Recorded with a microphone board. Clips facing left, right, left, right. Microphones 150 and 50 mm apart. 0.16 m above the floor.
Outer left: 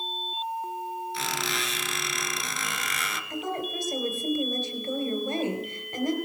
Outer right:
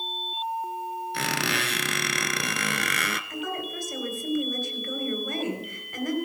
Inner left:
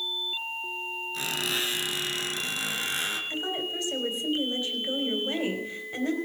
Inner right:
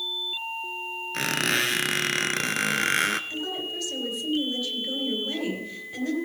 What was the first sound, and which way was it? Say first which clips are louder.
A squeak: outer right 3 dB, inner right 7 dB; 65° right (ahead or behind).